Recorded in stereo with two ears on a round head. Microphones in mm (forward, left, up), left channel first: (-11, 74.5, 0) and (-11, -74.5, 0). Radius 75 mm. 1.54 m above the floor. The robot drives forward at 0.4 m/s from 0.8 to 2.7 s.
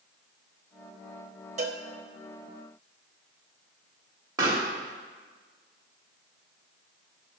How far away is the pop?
About 2 m.